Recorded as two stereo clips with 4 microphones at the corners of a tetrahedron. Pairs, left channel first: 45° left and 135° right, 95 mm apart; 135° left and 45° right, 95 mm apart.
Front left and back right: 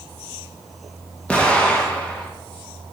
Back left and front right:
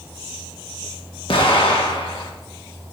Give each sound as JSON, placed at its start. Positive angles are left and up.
{"t": 1.3, "sound": "an explosion", "azimuth_deg": 120, "distance_m": 1.2}